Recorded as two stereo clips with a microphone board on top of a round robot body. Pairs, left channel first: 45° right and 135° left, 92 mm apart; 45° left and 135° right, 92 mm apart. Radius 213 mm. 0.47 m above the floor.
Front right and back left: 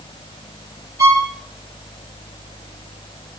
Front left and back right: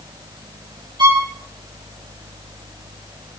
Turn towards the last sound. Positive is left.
turn(degrees=-175)